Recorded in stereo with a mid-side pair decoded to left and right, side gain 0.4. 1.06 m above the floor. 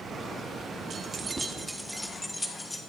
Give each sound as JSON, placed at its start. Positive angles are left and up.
{"t": 0.9, "sound": "keys jangling", "azimuth_deg": -55, "distance_m": 1.6}